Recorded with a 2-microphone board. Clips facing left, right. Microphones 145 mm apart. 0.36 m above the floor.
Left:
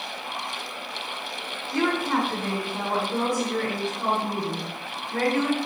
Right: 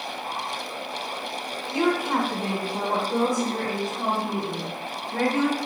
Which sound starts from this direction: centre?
A woman speaking, at 1.7 s.